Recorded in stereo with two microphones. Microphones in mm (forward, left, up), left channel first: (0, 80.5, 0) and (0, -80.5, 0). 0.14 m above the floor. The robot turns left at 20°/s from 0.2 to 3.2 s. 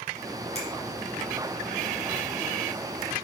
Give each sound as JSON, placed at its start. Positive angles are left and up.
{"t": 0.6, "sound": "a finger snap", "side_deg": 45, "distance_m": 1.8}